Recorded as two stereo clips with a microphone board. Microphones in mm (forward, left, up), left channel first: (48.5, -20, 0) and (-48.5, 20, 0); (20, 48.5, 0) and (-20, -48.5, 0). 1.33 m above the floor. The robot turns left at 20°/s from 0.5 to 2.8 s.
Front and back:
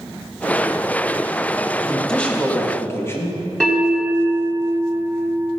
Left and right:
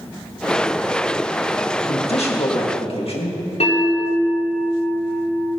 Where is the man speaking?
65° left, 1.8 m; by 3.4 s 45° left, 1.8 m.